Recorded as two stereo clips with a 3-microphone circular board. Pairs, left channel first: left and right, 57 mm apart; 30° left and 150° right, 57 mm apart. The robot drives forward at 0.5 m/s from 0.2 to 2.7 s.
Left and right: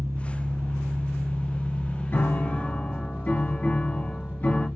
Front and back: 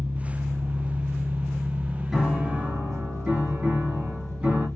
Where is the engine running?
95° right, 0.8 m; by 4.8 s 150° right, 1.5 m.